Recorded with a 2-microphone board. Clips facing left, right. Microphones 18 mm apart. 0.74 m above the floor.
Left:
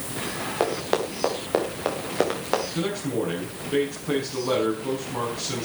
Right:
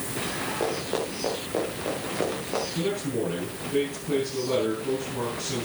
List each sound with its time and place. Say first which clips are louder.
0.6 s running footsteps: left 6 dB; 55° left (ahead or behind), 4.5 m; by 2.6 s 70° left (ahead or behind), 5 m
2.7 s a man speaking: left 1 dB; 55° left (ahead or behind), 6 m